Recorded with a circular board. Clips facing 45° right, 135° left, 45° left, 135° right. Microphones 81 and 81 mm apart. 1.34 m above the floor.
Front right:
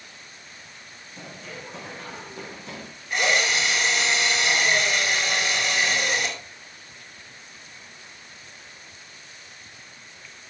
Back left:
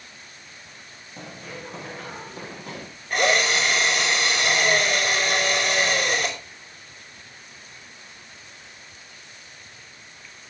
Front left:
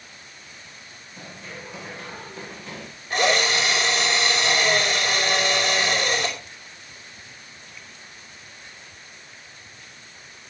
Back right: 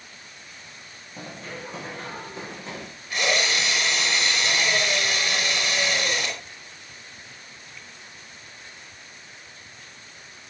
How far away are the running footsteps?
About 5 m.